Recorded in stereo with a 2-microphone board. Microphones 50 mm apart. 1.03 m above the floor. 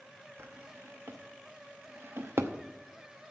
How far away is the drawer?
About 0.8 m.